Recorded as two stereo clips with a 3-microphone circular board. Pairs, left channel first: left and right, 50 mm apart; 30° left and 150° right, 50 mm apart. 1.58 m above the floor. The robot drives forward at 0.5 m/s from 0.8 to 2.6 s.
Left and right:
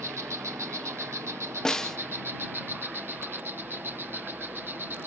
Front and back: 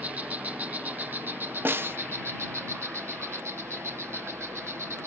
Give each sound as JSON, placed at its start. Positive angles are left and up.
{"t": 0.0, "sound": "an insect", "azimuth_deg": -95}
{"t": 1.6, "sound": "a snare drum", "azimuth_deg": 165}